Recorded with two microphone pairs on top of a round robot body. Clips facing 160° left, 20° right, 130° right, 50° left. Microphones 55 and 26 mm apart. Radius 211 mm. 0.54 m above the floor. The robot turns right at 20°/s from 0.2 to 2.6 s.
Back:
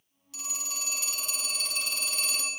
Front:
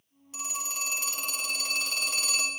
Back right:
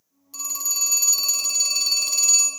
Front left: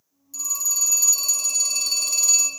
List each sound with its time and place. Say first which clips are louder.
0.3 s a phone ringing: front 4 dB, front left 1 dB; 85° right, 1.7 m; by 2.5 s 40° right, 1.7 m